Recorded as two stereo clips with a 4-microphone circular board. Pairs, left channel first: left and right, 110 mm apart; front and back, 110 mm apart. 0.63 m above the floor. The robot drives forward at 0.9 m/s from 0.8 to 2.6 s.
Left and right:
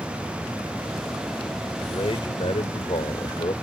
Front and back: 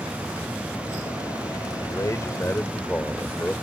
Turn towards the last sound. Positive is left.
turn(degrees=70)